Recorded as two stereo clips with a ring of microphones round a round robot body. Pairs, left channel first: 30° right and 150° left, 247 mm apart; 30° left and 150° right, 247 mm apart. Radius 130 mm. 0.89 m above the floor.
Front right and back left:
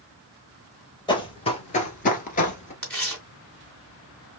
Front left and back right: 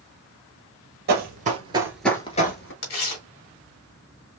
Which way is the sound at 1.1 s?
100° right.